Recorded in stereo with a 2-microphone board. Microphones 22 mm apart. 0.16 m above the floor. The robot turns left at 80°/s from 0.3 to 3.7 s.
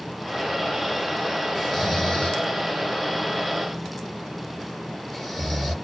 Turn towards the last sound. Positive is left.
turn(degrees=10)  # may be behind; listen again after turning